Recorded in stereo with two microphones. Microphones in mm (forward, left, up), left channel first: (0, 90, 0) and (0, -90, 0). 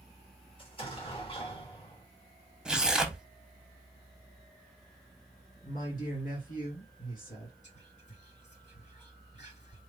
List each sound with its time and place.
0.6 s an explosion: 30° left (ahead or behind), 2.5 m
2.6 s tearing paper: 5° right (ahead or behind), 0.7 m
5.6 s a man speaking: 50° left (ahead or behind), 2.5 m
7.6 s whispering: 40° left (ahead or behind), 2.5 m